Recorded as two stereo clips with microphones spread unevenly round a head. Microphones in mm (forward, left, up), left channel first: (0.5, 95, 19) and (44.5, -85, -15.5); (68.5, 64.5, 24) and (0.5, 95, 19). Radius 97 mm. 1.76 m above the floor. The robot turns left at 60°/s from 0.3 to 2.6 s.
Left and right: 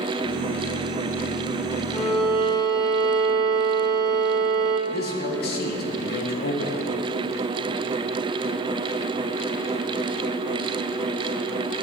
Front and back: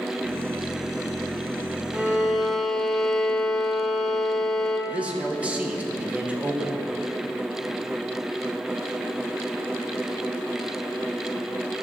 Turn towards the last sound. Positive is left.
turn(degrees=85)